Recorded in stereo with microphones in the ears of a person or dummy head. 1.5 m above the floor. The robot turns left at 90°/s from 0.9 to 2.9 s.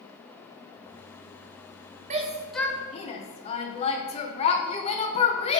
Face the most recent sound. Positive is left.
turn(degrees=35)  # may be behind; listen again after turning